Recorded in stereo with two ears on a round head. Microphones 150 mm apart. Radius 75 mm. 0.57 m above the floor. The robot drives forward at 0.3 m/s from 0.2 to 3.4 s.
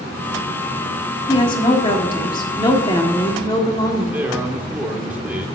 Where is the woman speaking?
30° left (ahead or behind), 1.4 m; by 4.2 s 25° left (ahead or behind), 1.6 m.